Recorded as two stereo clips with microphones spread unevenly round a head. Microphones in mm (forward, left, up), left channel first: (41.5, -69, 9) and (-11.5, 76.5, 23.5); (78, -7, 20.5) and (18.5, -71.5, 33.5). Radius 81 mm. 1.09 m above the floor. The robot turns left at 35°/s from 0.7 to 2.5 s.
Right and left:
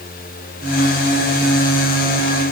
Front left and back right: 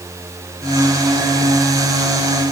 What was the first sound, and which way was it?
Only background noise.